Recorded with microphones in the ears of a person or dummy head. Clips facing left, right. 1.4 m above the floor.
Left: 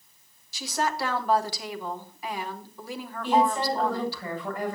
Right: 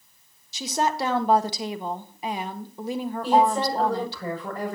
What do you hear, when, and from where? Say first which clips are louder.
0.5 s a woman speaking: right 3 dB; 25° right (ahead or behind), 1.4 m
3.2 s a woman speaking: right 2 dB; 35° right (ahead or behind), 6.5 m